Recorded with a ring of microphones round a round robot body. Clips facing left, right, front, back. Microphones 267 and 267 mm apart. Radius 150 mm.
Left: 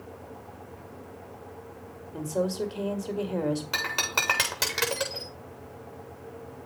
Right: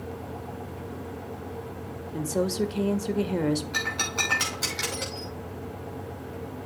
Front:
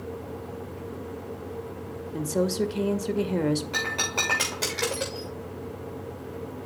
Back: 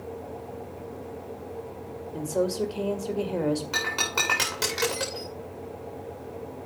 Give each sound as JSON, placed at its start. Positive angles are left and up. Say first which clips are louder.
{"t": 2.1, "sound": "a woman speaking", "louder": "right 2 dB, front 1 dB", "azimuth_deg": -50, "distance_m": 1.9}
{"t": 3.7, "sound": "breaking glass", "louder": "right 3 dB, front 1 dB", "azimuth_deg": 105, "distance_m": 7.5}